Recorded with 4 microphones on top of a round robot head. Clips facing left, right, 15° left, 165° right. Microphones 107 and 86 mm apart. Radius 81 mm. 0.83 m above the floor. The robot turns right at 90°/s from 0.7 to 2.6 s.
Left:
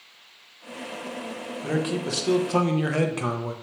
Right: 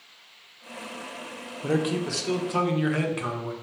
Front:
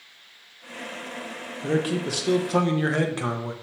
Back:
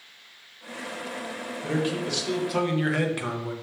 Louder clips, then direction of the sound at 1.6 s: Right 1 dB, front 3 dB; 25° right.